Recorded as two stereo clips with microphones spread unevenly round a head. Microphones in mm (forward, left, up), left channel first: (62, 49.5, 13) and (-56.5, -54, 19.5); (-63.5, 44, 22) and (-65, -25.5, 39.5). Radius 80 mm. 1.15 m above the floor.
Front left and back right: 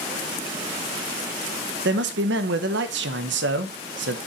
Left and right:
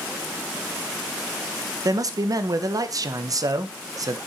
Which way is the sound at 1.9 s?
130° right.